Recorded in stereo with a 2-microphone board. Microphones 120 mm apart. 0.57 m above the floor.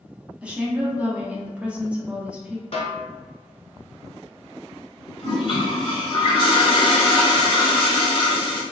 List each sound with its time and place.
0.4 s a woman speaking: 10° right (ahead or behind), 0.6 m
2.7 s a snare drum: 60° left (ahead or behind), 1.0 m
5.2 s a toilet flushing: 45° left (ahead or behind), 1.3 m